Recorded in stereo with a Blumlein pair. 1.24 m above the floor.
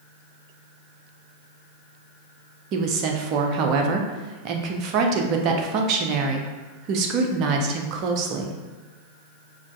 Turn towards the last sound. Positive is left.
turn(degrees=-35)